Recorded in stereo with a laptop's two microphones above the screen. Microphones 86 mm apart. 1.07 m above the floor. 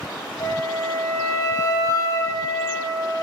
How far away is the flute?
About 1.0 m.